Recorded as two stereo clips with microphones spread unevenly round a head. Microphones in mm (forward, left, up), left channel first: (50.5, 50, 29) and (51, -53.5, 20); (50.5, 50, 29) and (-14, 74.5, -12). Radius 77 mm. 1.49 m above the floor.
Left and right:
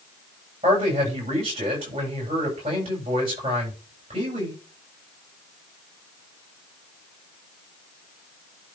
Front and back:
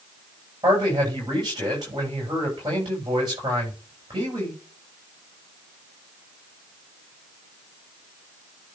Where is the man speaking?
145° right, 7.5 m.